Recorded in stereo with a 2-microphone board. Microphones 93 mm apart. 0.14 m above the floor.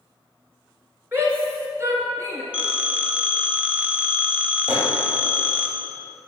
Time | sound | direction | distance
1.1 | a shout | 25° right (ahead or behind) | 2.5 m
2.5 | a phone ringing | 10° right (ahead or behind) | 1.4 m
4.7 | a microwave | 25° right (ahead or behind) | 2.5 m